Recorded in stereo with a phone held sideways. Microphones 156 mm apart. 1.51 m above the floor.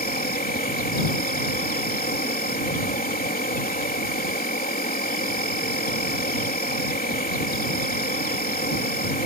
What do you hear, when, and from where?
0.0 s an insect: 70° left (ahead or behind)